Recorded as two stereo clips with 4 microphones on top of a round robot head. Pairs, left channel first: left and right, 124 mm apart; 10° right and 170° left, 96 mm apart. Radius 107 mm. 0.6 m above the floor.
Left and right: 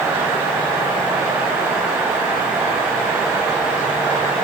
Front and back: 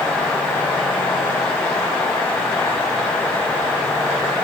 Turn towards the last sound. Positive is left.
No sound to turn to.